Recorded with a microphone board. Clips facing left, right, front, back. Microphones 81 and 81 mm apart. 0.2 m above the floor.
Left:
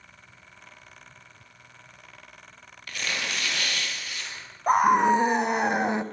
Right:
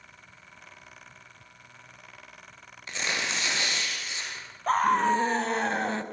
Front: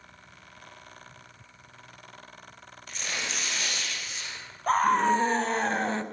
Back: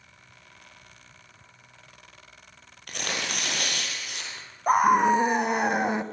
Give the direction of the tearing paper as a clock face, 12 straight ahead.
5 o'clock.